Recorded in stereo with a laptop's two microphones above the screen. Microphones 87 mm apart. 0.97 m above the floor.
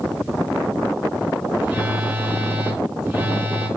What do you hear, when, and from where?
1.6 s a phone buzzing: 15° right (ahead or behind), 4 m